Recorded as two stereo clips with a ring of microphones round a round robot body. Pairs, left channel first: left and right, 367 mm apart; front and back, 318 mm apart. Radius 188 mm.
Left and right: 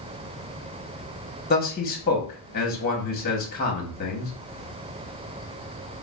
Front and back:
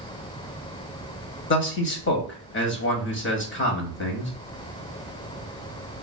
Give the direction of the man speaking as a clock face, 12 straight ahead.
11 o'clock.